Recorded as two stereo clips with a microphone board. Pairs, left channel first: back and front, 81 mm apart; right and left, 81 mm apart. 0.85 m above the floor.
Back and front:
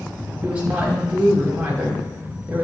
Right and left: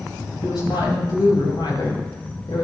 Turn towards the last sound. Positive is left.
turn(degrees=-70)